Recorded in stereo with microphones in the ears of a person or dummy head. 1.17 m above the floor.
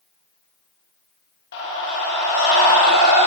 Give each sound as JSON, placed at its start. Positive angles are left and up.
{"t": 1.5, "sound": "a scream", "side_deg": 70, "distance_m": 1.3}